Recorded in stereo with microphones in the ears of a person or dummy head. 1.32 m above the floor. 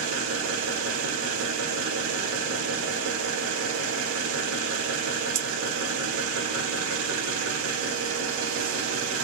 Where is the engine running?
70° right (ahead or behind), 0.7 m.